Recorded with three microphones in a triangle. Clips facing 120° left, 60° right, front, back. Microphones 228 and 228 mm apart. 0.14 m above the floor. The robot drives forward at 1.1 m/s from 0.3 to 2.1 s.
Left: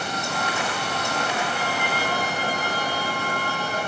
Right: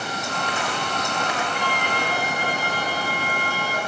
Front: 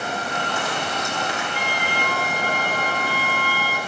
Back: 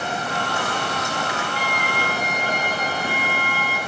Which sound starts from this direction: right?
A violin, at 1.5 s.